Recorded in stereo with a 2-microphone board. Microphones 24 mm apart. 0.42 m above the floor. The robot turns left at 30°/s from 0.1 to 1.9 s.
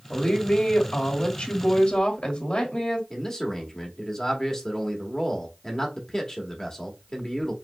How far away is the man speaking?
About 1.3 m.